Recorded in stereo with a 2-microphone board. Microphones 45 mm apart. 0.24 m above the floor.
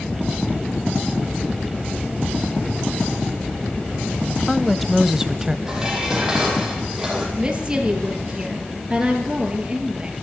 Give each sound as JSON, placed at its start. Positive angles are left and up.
{"t": 4.3, "sound": "a woman speaking", "side_deg": 10, "distance_m": 1.1}
{"t": 5.7, "sound": "dishes clattering", "side_deg": -15, "distance_m": 6.0}
{"t": 7.4, "sound": "a woman speaking", "side_deg": -15, "distance_m": 5.5}